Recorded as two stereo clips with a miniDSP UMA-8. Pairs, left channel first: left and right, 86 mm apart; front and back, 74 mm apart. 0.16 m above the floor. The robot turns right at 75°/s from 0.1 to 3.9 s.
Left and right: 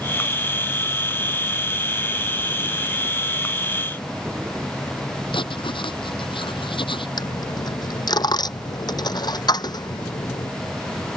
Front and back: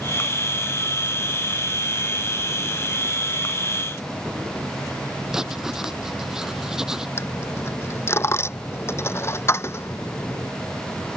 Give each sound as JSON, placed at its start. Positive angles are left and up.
{"t": 5.3, "sound": "writing", "azimuth_deg": 100}
{"t": 7.2, "sound": "a dropped coin", "azimuth_deg": 55}